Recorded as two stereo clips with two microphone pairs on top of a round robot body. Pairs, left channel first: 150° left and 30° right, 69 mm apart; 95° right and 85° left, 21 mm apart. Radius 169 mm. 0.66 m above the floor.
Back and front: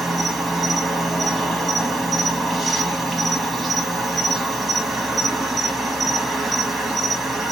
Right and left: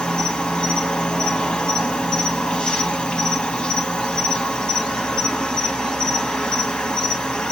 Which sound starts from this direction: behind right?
An insect, at 0.0 s.